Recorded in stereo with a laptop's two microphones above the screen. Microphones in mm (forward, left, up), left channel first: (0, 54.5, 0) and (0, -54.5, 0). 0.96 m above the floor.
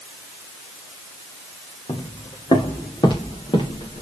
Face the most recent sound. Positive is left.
turn(degrees=50)  # may be behind; listen again after turning